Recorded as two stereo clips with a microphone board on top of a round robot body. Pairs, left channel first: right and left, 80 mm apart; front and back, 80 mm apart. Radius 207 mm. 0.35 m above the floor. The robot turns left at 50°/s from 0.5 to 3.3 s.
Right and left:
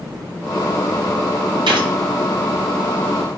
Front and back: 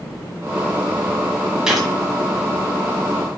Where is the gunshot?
100° left, 1.3 m; by 1.9 s 90° left, 1.3 m.